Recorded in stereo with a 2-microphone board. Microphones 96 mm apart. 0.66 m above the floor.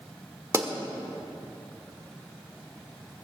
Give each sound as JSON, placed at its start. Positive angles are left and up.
{"t": 0.5, "sound": "a pop", "side_deg": -30, "distance_m": 1.2}